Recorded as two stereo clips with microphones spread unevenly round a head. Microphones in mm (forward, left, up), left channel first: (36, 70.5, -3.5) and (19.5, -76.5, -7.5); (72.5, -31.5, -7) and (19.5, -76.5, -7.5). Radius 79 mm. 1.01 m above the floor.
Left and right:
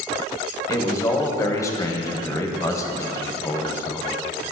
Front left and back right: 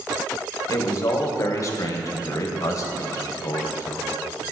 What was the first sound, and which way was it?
A man speaking, 20° left.